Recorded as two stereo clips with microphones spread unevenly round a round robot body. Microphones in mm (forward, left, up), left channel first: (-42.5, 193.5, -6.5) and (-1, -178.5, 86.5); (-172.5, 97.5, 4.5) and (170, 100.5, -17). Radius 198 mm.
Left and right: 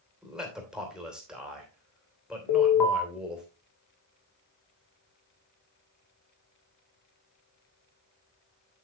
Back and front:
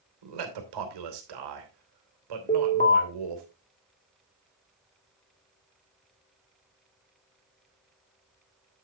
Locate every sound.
0.2 s a man speaking: 5° left, 2.5 m
2.5 s an alarm: 110° left, 2.5 m